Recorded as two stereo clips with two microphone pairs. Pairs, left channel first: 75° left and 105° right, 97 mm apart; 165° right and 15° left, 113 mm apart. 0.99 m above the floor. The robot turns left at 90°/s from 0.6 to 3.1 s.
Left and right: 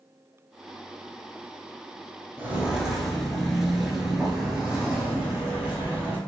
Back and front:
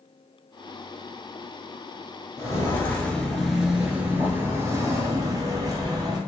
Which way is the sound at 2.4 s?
135° right.